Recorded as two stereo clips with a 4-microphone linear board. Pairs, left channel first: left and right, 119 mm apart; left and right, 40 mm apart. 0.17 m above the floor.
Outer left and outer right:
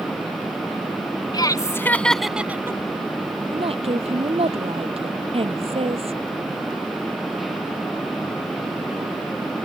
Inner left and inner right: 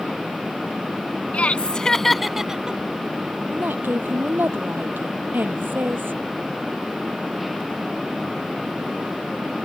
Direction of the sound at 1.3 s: 35° left (ahead or behind).